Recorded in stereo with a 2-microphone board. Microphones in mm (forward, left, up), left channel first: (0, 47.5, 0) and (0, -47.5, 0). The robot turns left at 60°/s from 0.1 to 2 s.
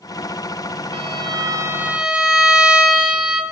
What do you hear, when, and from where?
0.9 s a violin: 110° right, 0.6 m; by 3.4 s 170° right, 0.6 m